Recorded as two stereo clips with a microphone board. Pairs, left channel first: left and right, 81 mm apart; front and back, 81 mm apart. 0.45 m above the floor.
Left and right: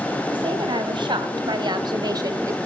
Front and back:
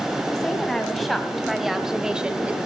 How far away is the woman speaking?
About 3 m.